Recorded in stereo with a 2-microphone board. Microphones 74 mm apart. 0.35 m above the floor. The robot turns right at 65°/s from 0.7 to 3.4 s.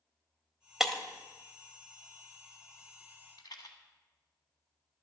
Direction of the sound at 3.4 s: 65° left (ahead or behind).